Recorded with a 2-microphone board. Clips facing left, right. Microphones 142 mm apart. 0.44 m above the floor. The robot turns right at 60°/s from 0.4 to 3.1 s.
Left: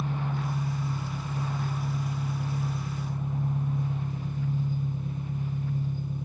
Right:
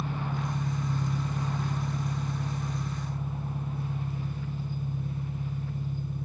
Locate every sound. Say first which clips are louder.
0.0 s an engine running: left 1 dB; 145° right, 1.5 m; by 6.3 s 15° left, 1.5 m